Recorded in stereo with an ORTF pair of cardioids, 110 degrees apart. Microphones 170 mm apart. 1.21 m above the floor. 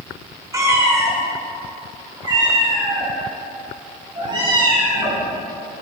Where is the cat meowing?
20° right, 2.5 m; by 5.2 s 30° right, 5.5 m.